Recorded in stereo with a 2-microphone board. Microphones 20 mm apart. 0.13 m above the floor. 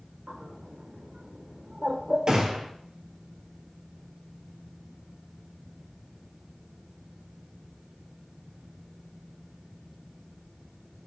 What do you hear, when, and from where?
0.3 s a bird: 45° right (ahead or behind), 1.8 m
2.3 s a gunshot: 45° right (ahead or behind), 1.5 m